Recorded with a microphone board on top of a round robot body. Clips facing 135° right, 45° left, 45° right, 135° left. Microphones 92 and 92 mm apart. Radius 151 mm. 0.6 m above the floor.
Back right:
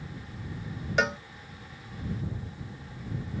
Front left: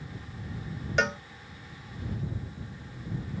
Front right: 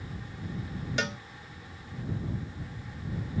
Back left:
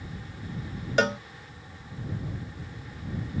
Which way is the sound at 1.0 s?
140° left.